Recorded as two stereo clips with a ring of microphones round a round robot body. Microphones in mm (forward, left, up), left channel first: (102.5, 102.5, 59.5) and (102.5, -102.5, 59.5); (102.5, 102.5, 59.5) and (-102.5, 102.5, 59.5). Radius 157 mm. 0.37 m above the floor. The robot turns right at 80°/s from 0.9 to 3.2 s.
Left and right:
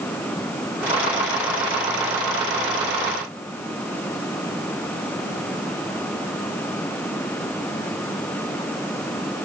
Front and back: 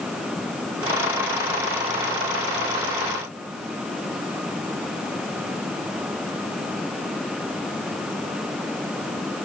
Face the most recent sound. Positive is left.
No sound to turn to.